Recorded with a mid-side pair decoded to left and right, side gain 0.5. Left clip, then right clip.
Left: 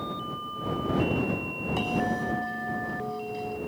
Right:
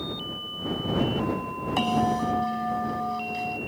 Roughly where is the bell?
Ahead right.